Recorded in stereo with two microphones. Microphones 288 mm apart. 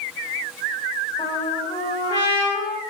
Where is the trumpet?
15° left (ahead or behind), 1.4 m.